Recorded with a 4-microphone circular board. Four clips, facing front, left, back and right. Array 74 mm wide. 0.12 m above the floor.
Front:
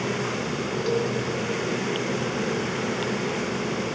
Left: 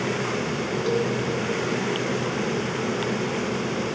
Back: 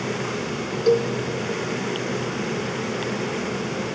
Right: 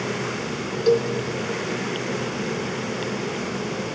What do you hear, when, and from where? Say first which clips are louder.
0.9 s a cowbell: right 6 dB, back 7 dB; 140° right, 4 m